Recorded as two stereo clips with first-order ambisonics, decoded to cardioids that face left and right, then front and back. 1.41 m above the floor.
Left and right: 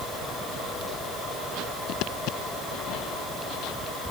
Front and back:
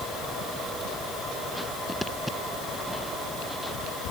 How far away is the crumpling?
No crumpling in this recording.